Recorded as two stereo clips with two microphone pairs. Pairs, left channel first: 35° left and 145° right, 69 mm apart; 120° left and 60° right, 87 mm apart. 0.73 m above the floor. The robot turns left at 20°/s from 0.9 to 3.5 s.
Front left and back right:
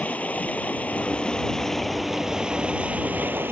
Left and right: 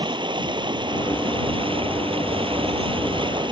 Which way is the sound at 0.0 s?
35° right.